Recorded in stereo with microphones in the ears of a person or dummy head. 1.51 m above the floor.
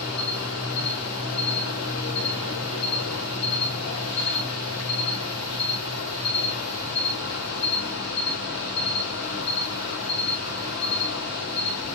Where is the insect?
75° left (ahead or behind), 3.5 m.